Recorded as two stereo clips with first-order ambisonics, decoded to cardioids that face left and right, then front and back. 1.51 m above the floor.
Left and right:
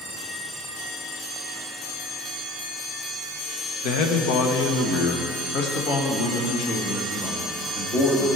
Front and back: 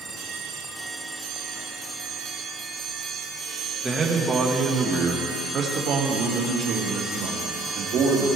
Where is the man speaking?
95° left, 1.2 m; by 8.3 s 135° left, 3 m.